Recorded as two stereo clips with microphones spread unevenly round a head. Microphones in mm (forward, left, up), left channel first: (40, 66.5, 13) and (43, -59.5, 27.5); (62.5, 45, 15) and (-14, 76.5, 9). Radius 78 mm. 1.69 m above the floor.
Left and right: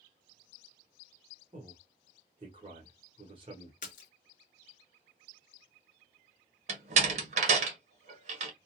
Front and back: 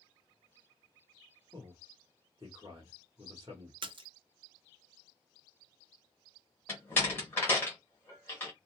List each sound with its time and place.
1.5 s a man speaking: 140° right, 1.0 m
3.8 s a splash: 135° left, 0.6 m
6.7 s a door slam: 90° right, 0.8 m